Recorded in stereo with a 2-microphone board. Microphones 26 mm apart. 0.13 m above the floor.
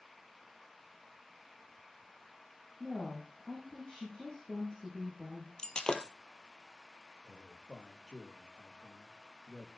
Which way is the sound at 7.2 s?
30° left (ahead or behind).